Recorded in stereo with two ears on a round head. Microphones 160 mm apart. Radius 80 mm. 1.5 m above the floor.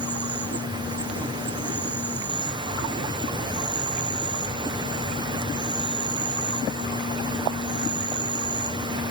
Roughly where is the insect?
Right.